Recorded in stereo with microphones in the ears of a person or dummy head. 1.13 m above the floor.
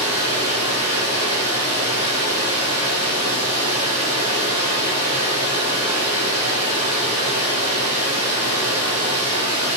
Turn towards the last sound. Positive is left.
turn(degrees=45)  # may be behind; listen again after turning